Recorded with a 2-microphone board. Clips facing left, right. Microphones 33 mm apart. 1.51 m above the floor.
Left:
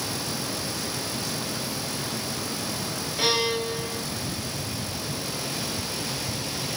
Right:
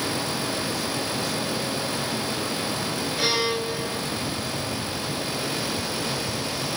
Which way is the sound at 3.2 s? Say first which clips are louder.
Left 1 dB; 10° right (ahead or behind).